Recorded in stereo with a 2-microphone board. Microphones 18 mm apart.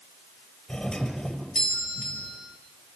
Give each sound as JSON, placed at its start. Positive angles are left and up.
{"t": 0.7, "sound": "a doorbell", "side_deg": 55, "distance_m": 5.5}